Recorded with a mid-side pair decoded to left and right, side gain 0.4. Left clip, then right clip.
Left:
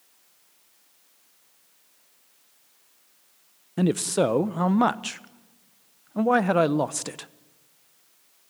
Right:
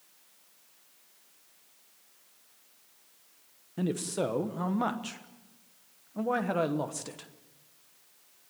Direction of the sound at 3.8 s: 60° left.